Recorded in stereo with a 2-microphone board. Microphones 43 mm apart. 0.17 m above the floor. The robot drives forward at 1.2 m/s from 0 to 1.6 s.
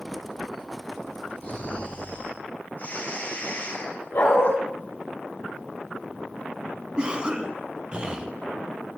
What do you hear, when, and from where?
1.4 s snoring: 45° left (ahead or behind), 5 m
4.1 s a dog barking: 60° left (ahead or behind), 6.5 m
7.0 s a cough: 20° right (ahead or behind), 1.2 m